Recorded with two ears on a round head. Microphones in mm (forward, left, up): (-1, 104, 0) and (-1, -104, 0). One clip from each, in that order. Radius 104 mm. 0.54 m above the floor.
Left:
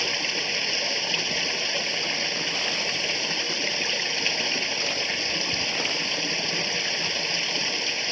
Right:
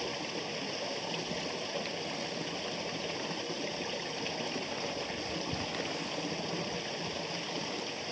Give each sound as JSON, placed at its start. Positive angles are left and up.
{"t": 0.0, "sound": "running water", "side_deg": 65}